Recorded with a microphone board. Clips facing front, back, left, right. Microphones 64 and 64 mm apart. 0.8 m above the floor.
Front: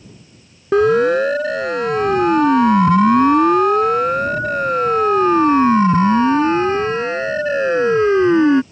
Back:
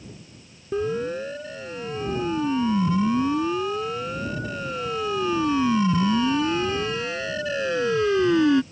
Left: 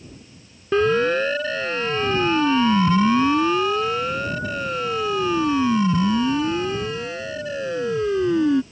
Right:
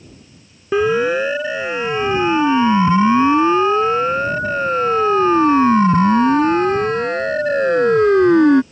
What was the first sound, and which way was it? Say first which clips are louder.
A siren: front 13 dB, right 2 dB; 10° right.